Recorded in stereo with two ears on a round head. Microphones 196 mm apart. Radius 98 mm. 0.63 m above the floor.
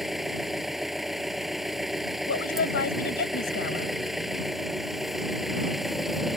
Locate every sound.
0.0 s an engine running: centre (ahead or behind)
2.3 s a woman speaking: 55° left (ahead or behind)